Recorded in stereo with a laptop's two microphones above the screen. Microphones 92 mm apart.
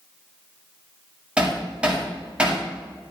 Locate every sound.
1.4 s hammering: 10° right (ahead or behind), 1.6 m